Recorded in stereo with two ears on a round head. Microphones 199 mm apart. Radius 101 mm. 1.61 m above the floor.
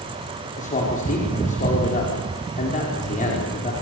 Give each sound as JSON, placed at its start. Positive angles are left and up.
{"t": 0.6, "sound": "a man speaking", "side_deg": 35, "distance_m": 5.5}